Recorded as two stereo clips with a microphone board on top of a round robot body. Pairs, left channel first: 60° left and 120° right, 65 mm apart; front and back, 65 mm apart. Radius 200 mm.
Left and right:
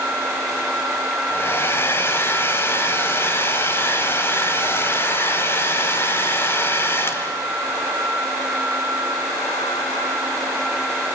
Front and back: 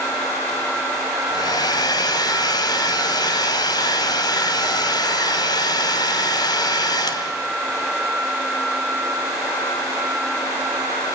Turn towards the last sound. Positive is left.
turn(degrees=5)